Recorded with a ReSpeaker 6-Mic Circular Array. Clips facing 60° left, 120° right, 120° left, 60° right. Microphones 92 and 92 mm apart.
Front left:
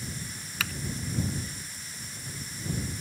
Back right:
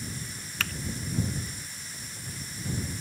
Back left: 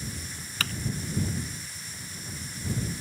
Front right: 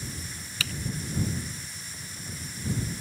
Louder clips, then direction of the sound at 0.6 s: Even, back left 3 dB; 145° left.